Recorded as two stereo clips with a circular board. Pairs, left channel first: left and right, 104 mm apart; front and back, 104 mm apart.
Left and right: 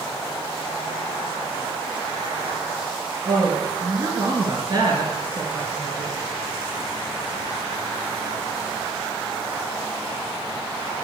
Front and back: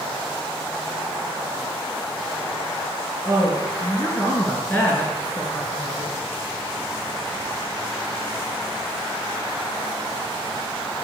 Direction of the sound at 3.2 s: 65° right.